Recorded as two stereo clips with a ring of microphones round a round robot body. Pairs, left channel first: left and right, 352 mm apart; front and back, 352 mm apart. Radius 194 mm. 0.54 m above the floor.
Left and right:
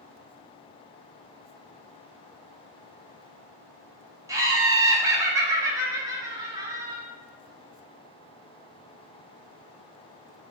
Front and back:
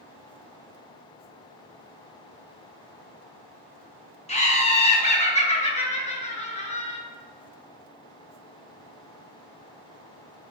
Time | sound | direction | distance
4.3 | laughter | 25° right | 0.7 m